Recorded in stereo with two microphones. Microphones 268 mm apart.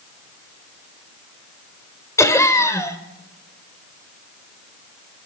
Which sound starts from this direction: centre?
Laughter, at 2.2 s.